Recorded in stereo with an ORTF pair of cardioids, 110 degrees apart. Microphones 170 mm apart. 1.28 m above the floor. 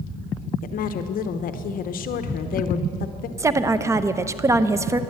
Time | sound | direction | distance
0.6 | a woman speaking | 55° left | 0.9 m
3.4 | a woman speaking | 20° right | 0.7 m